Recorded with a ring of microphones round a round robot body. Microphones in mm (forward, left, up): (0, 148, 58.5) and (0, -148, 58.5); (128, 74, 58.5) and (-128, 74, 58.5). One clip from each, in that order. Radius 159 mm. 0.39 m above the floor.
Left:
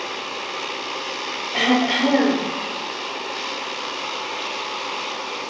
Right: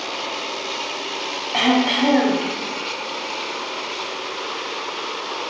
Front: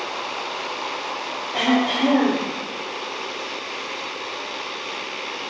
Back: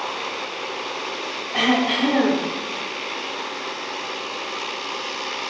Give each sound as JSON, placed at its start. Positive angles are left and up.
{"t": 1.5, "sound": "throat clearing", "azimuth_deg": -90, "distance_m": 3.5}